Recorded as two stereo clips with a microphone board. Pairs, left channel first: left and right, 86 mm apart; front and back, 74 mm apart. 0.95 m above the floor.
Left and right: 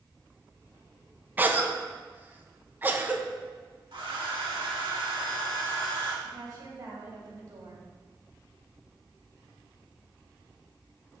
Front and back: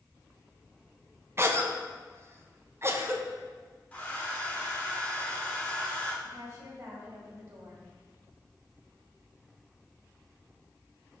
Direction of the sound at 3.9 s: 70° right.